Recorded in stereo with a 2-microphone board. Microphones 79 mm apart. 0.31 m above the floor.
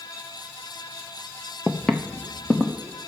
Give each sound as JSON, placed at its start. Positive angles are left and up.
{"t": 1.7, "sound": "footsteps", "side_deg": 0, "distance_m": 0.5}